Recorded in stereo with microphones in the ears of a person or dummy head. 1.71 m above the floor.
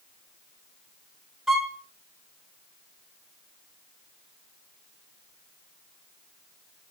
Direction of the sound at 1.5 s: 5° right (ahead or behind).